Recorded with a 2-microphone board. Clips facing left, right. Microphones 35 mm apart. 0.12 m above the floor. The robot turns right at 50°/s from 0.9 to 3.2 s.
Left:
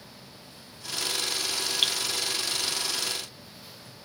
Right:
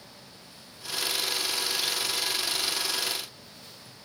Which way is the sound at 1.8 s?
65° left (ahead or behind).